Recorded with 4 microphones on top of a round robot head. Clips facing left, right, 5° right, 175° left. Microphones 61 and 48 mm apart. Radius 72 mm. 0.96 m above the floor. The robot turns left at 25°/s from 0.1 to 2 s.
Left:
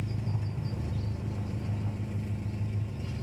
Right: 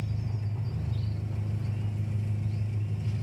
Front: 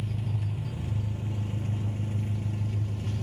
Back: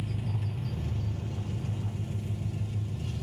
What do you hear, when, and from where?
0.0 s an engine running: 90° left, 1.5 m; by 3.2 s 45° left, 1.5 m